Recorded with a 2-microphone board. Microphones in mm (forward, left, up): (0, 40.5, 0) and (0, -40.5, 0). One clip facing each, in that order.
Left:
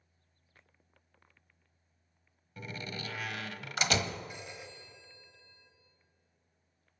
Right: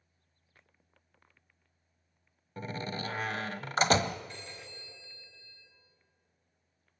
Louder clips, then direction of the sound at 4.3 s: Left 1 dB; 10° left (ahead or behind).